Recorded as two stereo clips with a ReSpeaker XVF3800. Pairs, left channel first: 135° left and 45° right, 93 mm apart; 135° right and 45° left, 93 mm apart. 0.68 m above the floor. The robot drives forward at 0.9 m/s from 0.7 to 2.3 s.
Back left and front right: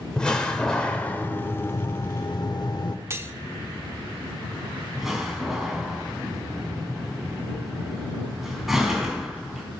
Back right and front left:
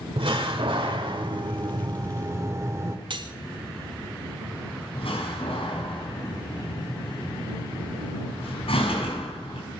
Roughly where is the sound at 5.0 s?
Behind right.